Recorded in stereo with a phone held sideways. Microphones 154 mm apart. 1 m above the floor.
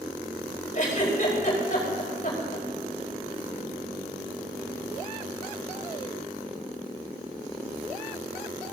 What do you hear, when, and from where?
0.8 s a giggle: 55° left (ahead or behind), 5 m